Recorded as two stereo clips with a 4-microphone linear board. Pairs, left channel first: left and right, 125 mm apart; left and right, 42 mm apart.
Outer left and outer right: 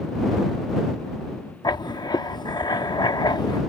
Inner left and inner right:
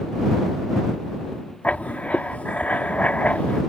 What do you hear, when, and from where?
1.6 s writing: 35° left (ahead or behind)